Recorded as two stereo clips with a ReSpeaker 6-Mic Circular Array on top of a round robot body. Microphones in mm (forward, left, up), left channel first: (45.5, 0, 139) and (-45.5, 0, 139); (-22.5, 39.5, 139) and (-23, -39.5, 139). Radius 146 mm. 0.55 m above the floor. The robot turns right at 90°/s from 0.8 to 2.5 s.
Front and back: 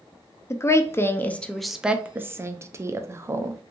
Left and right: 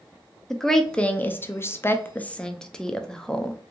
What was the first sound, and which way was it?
A woman speaking, 10° left.